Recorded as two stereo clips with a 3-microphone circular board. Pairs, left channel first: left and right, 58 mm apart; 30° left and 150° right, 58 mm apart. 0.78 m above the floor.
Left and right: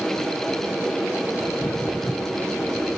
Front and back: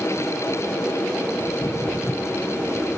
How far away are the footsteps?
About 1.0 m.